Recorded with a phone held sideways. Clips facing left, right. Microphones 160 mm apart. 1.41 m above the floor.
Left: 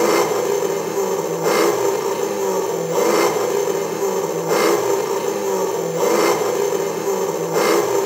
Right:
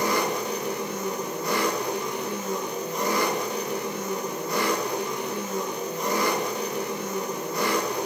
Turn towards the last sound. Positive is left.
turn(degrees=70)  # may be behind; listen again after turning